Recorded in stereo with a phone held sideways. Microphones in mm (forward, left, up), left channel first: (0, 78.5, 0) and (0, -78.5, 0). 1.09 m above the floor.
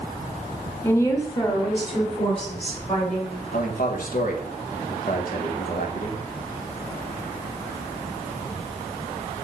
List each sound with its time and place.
0.8 s a woman speaking: 10° left (ahead or behind), 0.9 m; by 3.4 s 45° left (ahead or behind), 4 m
3.5 s a man speaking: 65° left (ahead or behind), 1.4 m